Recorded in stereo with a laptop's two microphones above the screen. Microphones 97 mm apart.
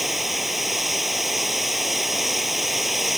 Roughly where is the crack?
No crack in this recording.